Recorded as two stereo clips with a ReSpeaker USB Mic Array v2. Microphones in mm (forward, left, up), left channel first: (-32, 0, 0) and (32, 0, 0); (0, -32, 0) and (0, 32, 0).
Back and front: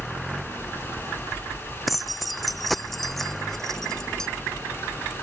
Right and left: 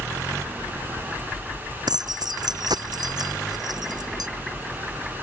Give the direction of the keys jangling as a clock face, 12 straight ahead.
9 o'clock.